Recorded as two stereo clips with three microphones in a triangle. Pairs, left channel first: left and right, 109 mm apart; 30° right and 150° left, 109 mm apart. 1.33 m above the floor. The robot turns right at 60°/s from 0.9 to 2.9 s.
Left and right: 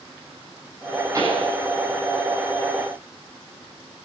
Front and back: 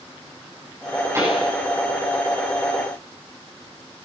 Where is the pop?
150° right, 8 m; by 1.5 s 130° right, 8 m.